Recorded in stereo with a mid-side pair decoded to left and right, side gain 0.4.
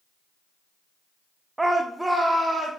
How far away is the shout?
About 0.6 m.